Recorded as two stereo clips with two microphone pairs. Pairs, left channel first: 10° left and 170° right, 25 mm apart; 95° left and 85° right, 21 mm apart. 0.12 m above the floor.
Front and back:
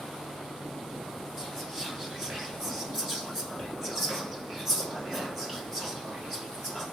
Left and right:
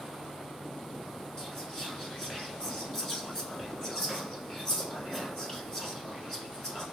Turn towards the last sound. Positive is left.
turn(degrees=130)